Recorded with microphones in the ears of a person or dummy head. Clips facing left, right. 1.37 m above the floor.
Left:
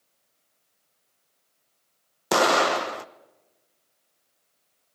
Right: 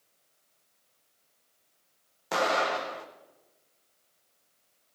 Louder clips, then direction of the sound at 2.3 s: Left 7 dB; 80° left.